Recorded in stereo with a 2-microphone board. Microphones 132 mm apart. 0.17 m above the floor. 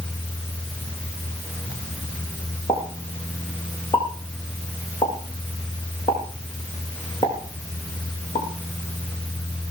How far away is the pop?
About 7.5 m.